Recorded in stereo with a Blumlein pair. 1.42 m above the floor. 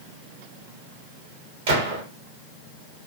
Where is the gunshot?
50° right, 1.1 m.